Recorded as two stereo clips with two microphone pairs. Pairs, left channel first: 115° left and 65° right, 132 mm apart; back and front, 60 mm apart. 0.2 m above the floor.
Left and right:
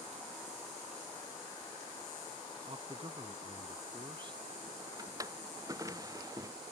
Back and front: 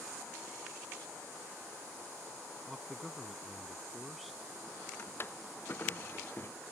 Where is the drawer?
130° right.